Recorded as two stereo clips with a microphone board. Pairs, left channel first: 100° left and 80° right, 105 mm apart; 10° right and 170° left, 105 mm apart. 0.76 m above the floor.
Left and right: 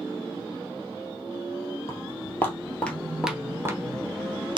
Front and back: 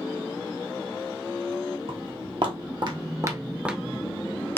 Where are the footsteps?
155° left, 1.6 m; by 4.6 s 75° right, 1.2 m.